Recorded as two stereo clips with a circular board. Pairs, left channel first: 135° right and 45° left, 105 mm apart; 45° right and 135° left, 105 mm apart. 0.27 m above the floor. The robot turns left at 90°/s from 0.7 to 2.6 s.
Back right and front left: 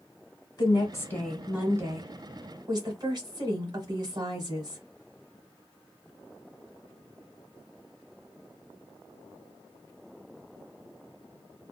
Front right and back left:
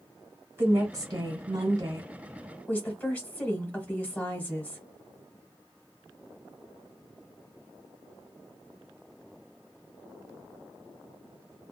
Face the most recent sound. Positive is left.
turn(degrees=25)